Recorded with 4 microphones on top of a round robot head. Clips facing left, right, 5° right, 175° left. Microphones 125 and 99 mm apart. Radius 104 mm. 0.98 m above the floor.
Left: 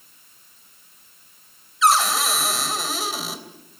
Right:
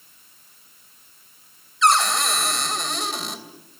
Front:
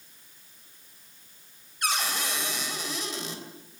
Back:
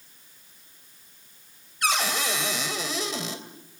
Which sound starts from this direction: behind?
A cupboard door, at 1.8 s.